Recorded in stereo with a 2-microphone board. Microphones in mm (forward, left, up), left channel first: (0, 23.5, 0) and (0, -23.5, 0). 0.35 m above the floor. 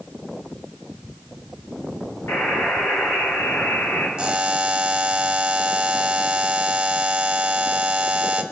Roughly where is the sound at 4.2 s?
Right.